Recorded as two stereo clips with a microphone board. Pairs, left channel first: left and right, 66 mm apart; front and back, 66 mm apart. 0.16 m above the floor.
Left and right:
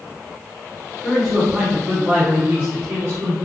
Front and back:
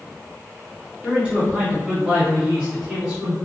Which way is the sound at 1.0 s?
Straight behind.